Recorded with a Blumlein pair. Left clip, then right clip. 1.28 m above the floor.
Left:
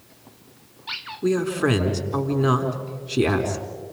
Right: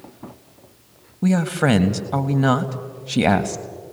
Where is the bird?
I don't hear a bird.